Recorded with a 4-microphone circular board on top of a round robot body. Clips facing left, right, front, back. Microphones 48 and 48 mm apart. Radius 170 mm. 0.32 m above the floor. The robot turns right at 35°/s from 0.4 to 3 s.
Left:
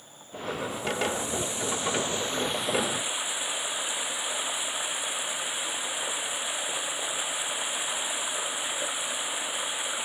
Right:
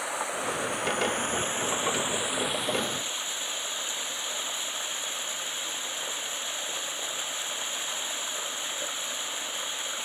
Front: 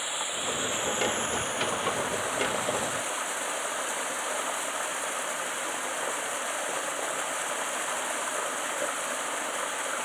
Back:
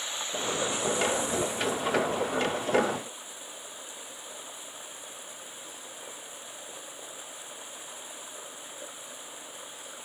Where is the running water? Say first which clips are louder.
Right 8 dB, front 1 dB; 80° right; by 10.1 s 15° left.